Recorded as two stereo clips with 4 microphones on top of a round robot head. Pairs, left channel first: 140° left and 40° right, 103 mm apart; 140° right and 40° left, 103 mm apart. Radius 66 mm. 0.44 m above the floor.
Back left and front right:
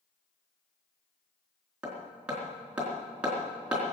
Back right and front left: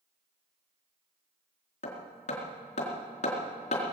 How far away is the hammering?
About 4 m.